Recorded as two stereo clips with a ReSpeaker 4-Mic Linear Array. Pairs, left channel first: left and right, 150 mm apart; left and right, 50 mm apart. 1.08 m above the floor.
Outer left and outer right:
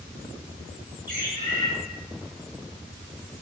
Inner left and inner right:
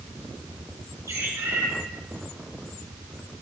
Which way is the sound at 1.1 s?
65° right (ahead or behind).